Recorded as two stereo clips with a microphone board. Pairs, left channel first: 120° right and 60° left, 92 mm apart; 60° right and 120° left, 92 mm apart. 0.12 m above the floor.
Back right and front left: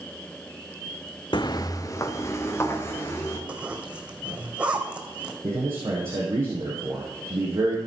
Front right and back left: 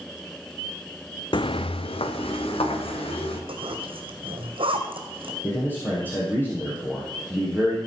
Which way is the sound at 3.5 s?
135° left.